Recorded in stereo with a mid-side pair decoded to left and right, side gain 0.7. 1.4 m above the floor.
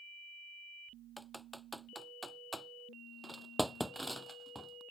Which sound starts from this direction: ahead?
Typing on a keyboard, at 1.2 s.